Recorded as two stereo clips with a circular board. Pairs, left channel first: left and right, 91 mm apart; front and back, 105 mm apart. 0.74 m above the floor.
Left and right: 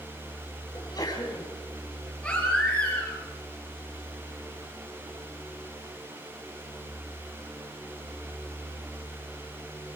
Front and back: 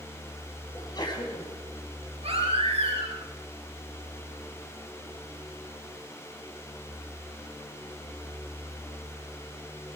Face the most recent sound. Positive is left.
turn(degrees=170)